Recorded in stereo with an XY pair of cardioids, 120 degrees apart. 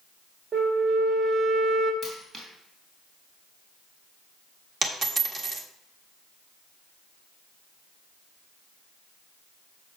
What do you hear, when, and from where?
0.5 s a flute: 35° right, 2 m
2.0 s a dropped coin: 45° right, 3.5 m
4.8 s a dropped coin: 35° right, 1.3 m